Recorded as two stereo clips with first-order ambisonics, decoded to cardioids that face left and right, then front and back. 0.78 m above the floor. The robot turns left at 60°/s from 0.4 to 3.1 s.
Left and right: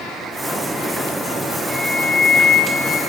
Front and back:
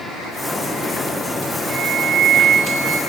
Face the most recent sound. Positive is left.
turn(degrees=120)